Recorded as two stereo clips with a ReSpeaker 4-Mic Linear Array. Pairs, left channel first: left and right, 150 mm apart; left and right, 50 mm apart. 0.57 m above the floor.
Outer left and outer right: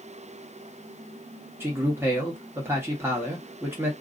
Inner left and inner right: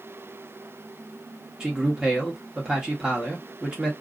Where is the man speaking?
15° right (ahead or behind), 1.1 m.